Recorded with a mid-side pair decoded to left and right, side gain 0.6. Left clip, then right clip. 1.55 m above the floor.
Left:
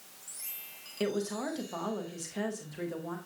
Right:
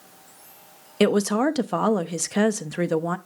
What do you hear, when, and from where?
1.0 s a woman speaking: 65° right, 0.6 m